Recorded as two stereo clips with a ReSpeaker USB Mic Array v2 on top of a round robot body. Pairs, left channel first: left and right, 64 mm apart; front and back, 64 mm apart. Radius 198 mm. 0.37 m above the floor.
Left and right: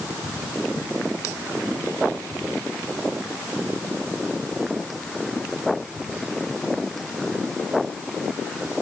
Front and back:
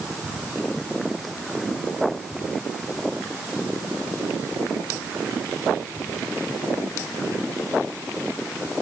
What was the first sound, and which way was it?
Only background noise.